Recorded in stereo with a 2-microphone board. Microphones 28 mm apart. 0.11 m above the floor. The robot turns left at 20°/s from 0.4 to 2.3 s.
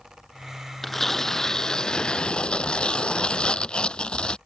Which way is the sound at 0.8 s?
10° left (ahead or behind).